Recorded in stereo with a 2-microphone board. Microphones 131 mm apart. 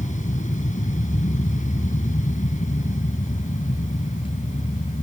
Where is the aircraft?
70° left (ahead or behind).